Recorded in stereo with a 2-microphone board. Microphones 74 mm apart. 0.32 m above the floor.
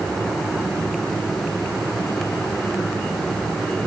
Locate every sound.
Only background noise.